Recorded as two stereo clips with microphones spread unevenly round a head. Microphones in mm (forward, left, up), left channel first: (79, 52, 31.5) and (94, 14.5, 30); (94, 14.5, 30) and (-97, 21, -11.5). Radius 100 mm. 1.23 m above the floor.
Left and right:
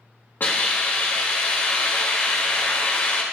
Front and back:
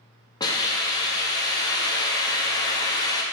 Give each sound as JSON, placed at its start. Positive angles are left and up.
{"t": 0.4, "sound": "a hiss", "azimuth_deg": 70, "distance_m": 2.0}